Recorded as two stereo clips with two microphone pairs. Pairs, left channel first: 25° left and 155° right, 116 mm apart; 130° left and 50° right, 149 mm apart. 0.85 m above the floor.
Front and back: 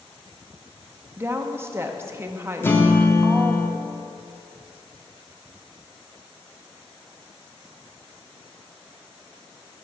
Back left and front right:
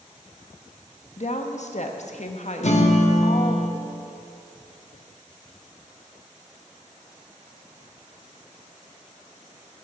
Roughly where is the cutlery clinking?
No cutlery clinking in this recording.